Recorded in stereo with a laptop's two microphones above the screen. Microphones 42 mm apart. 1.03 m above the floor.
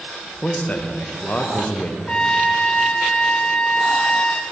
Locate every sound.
0.4 s a man speaking: 35° left (ahead or behind), 0.5 m
2.1 s a trumpet: 30° left (ahead or behind), 0.5 m